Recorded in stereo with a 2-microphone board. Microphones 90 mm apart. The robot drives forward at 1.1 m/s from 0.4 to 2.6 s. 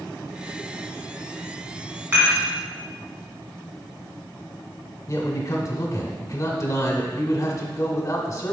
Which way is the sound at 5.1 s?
40° left (ahead or behind).